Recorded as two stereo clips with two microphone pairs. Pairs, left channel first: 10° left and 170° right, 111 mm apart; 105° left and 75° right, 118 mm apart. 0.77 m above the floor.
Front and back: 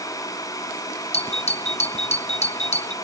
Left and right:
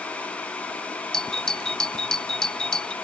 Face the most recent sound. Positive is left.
turn(degrees=20)